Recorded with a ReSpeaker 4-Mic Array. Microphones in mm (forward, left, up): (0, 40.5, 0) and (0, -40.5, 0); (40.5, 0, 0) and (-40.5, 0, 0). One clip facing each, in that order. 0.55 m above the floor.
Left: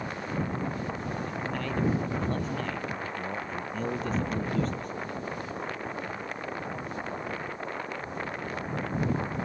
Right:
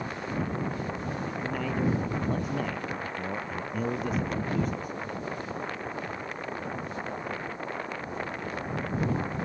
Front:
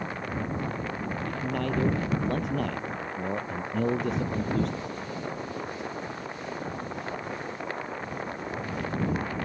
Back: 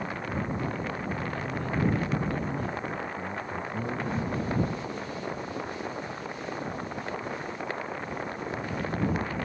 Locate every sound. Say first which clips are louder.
1.3 s a man speaking: right 3 dB, front 3 dB; 5° right